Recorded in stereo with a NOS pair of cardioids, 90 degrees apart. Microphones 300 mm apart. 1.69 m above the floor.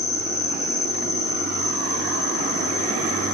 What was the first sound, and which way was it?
An insect, 10° left.